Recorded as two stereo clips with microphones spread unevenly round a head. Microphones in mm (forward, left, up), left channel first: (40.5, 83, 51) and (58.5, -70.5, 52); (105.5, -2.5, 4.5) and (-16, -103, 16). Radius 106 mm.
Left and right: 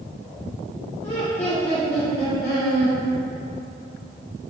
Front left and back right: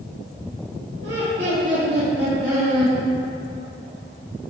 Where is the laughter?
160° left, 1.8 m; by 3.0 s 120° left, 1.6 m.